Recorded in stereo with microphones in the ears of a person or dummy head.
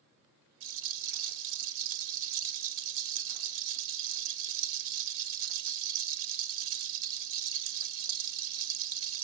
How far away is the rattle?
About 0.9 m.